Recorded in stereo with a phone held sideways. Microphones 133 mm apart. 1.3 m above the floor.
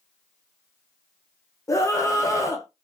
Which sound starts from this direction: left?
A scream, at 1.7 s.